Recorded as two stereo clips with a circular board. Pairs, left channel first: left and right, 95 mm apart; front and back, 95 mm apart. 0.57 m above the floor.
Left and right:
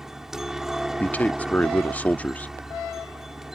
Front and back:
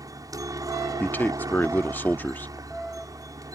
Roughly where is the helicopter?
Behind.